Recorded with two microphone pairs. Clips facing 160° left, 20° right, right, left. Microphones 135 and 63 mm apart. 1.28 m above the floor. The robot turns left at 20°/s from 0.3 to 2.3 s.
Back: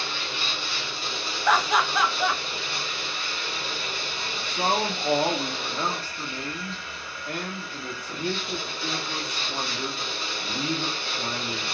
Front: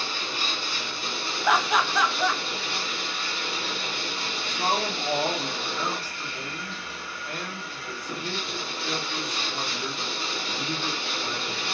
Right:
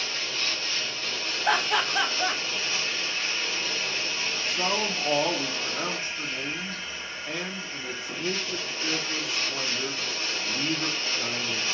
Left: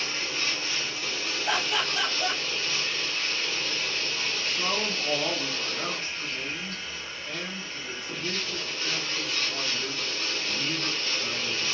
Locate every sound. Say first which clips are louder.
0.0 s running water: front 1 dB, left 1 dB; 25° left, 1.3 m; by 11.7 s 15° right, 1.3 m
1.4 s laughter: back 1 dB, right 4 dB; 100° right, 0.7 m; by 2.4 s 115° right, 0.7 m
4.3 s a man speaking: back 2 dB, right 3 dB; 145° right, 0.6 m